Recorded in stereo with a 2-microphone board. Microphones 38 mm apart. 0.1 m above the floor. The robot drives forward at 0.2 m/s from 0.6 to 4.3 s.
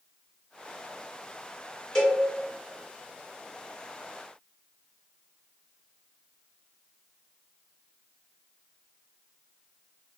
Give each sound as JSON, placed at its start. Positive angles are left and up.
{"t": 1.9, "sound": "a cowbell", "side_deg": 15, "distance_m": 1.5}